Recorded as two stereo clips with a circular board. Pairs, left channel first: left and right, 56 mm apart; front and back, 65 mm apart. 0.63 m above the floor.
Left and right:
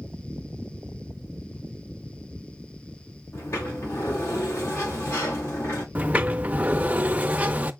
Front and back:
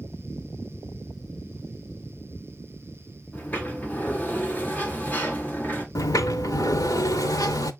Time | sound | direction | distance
3.3 | a sliding door | 60° left | 1.6 m
6.0 | a sliding door | 25° right | 0.6 m